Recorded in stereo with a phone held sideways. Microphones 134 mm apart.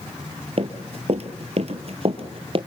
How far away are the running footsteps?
About 1.9 m.